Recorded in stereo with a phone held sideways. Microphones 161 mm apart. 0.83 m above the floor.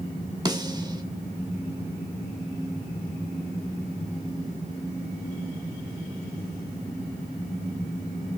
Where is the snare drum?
25° right (ahead or behind), 1.8 m.